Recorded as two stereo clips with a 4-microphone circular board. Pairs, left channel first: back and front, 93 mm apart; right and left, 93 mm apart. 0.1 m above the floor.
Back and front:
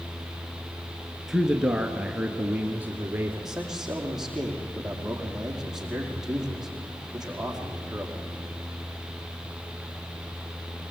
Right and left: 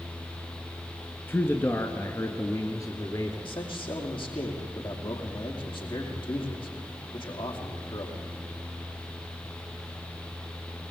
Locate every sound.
1.3 s a man speaking: 80° right, 1.4 m; by 3.5 s 60° right, 2 m
3.5 s a man speaking: 85° right, 4.5 m